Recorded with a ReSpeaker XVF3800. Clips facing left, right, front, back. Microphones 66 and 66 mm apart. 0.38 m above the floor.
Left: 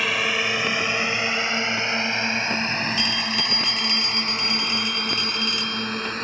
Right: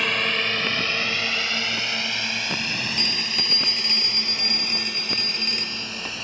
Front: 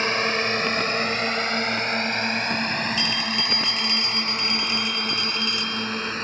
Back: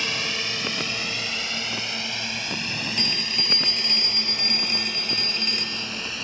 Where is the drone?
5° left; by 6.2 s 45° left.